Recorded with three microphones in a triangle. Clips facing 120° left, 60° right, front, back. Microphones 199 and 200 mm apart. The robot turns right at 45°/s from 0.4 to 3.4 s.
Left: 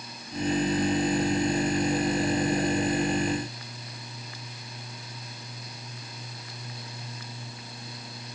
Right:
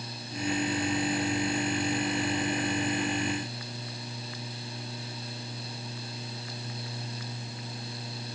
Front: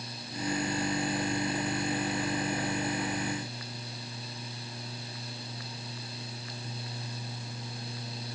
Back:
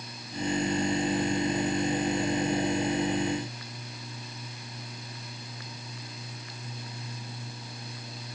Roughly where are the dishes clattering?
I don't hear dishes clattering.